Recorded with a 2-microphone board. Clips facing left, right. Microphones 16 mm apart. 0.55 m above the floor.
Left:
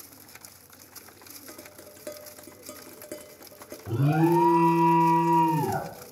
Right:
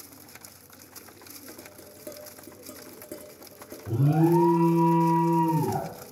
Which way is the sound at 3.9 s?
40° left (ahead or behind).